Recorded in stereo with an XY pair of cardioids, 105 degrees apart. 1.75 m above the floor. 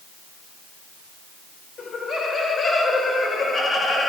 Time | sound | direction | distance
1.8 | laughter | 45° left | 6.5 m